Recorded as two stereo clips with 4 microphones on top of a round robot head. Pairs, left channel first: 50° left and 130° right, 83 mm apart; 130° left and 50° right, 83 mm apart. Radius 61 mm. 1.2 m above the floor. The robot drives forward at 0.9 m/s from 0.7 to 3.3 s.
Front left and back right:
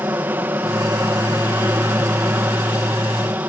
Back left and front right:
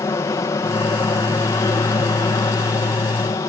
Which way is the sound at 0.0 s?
170° left.